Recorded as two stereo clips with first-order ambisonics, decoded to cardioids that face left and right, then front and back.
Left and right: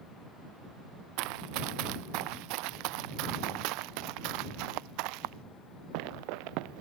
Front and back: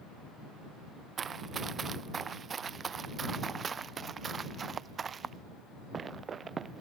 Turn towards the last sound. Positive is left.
turn(degrees=-110)